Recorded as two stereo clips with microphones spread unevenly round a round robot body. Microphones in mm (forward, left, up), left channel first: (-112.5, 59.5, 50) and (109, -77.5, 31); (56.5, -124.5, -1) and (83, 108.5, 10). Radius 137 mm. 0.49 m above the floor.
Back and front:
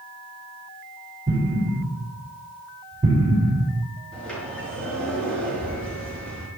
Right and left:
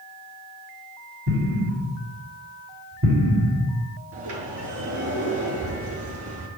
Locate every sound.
1.3 s an explosion: 40° left, 3 m
4.1 s a sliding door: 60° left, 5 m